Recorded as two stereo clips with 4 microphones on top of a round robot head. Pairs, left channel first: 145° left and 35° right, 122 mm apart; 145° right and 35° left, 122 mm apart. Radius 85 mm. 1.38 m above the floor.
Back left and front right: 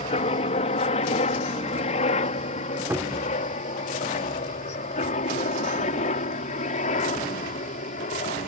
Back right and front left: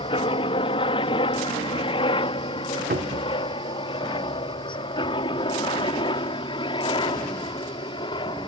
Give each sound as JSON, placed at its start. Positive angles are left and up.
{"t": 0.0, "sound": "a helicopter", "azimuth_deg": 175}
{"t": 2.9, "sound": "a cupboard door", "azimuth_deg": 35}